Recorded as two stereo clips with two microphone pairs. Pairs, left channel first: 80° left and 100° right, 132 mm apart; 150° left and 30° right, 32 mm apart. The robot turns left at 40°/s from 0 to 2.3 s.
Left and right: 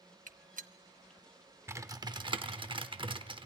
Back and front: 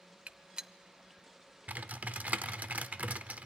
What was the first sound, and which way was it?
A gunshot, 80° right.